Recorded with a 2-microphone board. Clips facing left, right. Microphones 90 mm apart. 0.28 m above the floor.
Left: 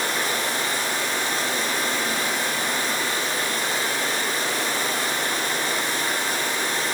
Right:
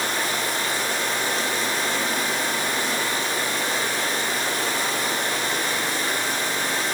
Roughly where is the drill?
No drill in this recording.